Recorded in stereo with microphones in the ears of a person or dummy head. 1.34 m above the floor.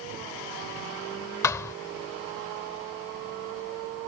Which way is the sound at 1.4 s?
15° left (ahead or behind).